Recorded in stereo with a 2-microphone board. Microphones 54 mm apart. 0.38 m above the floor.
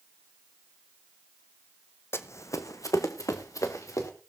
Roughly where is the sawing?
No sawing in this recording.